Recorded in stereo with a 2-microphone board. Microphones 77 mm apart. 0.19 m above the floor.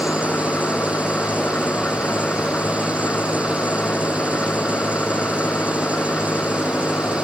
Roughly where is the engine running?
Left.